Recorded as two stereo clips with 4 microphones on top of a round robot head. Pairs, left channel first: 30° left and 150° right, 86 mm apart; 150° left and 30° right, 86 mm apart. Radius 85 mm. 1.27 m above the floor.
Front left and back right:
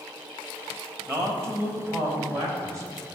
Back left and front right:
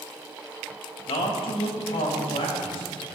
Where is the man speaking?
150° left, 2 m; by 3.2 s 160° left, 3 m.